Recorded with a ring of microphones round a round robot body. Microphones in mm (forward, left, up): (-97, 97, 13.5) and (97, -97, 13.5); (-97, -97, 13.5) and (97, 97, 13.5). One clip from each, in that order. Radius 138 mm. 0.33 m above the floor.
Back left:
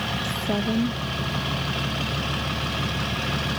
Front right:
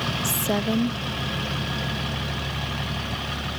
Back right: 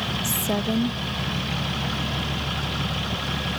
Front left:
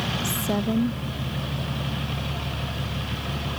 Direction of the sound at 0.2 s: 60° right.